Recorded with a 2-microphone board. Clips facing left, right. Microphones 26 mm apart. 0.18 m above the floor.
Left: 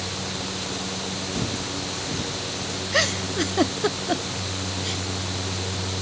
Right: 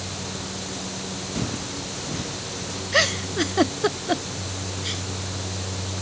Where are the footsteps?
10° right (ahead or behind); by 2.8 s 5° right (ahead or behind).